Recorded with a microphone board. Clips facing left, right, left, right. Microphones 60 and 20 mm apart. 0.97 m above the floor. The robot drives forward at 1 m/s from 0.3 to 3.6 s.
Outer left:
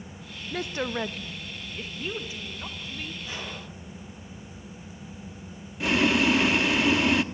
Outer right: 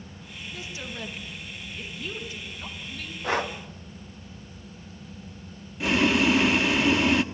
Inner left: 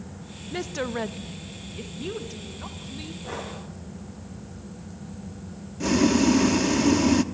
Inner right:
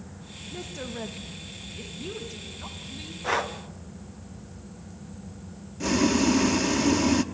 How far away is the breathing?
About 1.7 m.